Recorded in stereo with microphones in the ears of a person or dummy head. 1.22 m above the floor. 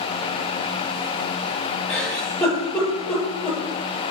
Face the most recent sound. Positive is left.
turn(degrees=10)  # may be behind; listen again after turning